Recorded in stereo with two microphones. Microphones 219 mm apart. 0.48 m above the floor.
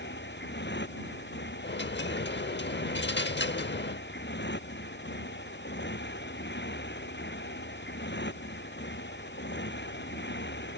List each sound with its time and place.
0.0 s a motorcycle: 60° left (ahead or behind)
1.6 s a dropped coin: 60° left (ahead or behind)